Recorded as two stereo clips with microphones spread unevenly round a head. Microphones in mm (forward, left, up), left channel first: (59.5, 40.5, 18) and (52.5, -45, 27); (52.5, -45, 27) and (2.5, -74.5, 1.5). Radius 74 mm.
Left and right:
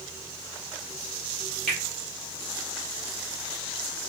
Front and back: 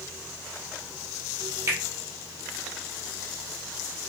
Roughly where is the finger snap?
Behind.